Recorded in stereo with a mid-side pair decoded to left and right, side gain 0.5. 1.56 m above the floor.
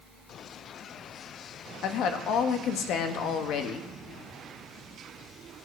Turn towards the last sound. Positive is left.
turn(degrees=70)